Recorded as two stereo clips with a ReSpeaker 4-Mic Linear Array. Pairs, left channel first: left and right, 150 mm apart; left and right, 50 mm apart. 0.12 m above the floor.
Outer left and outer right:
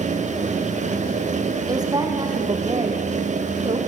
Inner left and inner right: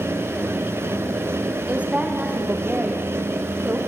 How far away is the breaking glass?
No breaking glass in this recording.